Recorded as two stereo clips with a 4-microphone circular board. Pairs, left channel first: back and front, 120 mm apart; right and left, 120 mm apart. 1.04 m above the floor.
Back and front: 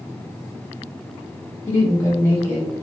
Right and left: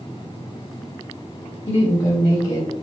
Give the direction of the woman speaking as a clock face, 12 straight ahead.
4 o'clock.